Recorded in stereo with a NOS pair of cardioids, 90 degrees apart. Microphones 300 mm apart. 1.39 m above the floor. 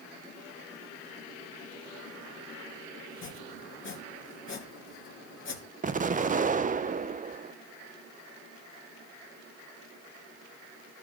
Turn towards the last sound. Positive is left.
turn(degrees=-25)